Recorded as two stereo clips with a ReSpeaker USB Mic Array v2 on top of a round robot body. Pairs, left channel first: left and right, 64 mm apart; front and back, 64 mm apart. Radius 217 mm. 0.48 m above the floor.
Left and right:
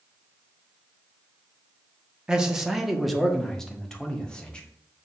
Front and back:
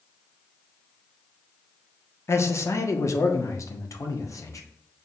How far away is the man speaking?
About 1.5 m.